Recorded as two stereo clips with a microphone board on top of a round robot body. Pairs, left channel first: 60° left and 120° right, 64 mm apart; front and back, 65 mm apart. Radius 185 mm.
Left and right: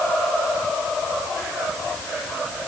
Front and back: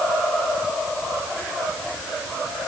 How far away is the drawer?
No drawer in this recording.